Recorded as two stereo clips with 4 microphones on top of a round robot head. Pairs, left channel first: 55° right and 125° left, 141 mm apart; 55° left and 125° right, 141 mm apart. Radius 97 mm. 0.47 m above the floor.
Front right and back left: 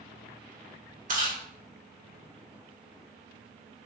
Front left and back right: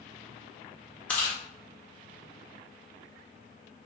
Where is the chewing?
135° left, 1.8 m.